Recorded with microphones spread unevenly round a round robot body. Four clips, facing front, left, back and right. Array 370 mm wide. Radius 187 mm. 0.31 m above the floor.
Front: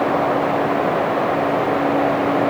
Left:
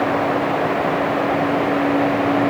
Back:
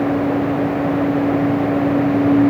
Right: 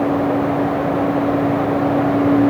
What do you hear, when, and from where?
Only background noise.